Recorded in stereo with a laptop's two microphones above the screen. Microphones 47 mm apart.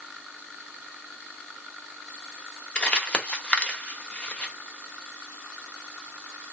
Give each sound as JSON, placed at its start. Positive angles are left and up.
{"t": 2.8, "sound": "crumpling", "side_deg": 25, "distance_m": 1.1}